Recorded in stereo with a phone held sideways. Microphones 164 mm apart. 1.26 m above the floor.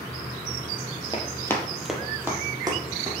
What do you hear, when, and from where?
1.1 s running footsteps: 25° left (ahead or behind), 1.4 m; by 3.1 s 30° right (ahead or behind), 2.5 m